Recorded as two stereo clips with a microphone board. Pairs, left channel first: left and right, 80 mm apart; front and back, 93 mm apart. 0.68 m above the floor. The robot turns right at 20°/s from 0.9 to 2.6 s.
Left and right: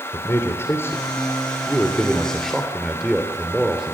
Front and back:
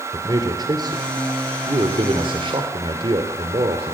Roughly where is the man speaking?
Behind left.